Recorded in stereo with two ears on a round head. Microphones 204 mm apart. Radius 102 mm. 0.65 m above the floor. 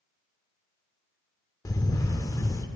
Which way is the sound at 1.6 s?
15° left (ahead or behind).